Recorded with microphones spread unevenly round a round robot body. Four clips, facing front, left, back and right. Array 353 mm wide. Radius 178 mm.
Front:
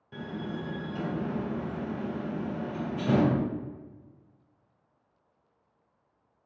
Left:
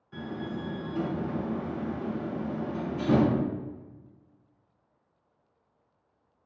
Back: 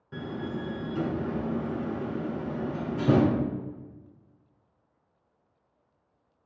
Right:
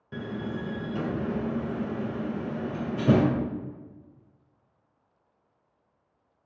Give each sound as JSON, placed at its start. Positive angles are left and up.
{"t": 0.1, "sound": "a door slam", "azimuth_deg": -105, "distance_m": 1.7}